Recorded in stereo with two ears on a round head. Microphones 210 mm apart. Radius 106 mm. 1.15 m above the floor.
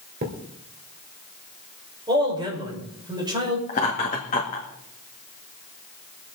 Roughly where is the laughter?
Left.